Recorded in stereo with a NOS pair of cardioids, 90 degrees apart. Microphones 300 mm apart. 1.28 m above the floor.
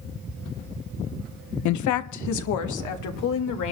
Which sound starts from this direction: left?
A woman speaking, at 1.6 s.